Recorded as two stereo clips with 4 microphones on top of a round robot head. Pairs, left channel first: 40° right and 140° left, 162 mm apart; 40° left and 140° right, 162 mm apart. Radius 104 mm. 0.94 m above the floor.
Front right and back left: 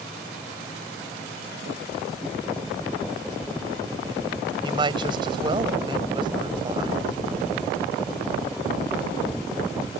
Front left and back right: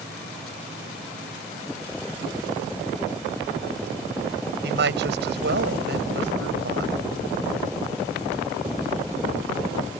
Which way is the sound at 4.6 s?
160° right.